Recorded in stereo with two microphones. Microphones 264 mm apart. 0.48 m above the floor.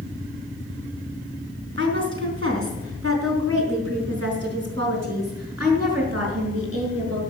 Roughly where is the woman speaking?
Right.